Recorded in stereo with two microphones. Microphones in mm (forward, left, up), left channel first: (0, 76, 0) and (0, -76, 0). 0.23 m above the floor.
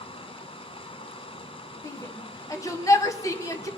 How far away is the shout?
About 1.7 m.